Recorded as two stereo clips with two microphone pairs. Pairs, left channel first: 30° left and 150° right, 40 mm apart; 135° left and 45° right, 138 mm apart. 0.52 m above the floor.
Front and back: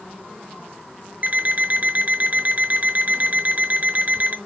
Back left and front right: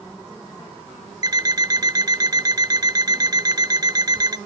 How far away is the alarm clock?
About 0.7 m.